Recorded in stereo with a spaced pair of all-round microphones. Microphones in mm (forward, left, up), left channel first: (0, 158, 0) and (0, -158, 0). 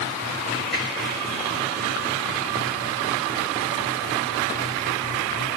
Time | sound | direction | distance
0.7 | a finger snap | 70° right (ahead or behind) | 4.5 m